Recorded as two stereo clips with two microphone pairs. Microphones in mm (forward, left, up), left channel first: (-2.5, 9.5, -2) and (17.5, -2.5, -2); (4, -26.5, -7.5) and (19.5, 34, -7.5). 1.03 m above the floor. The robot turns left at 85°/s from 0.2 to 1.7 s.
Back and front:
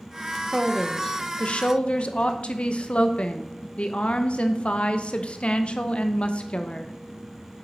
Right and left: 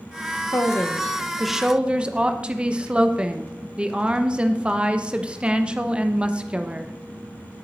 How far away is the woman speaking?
About 0.8 m.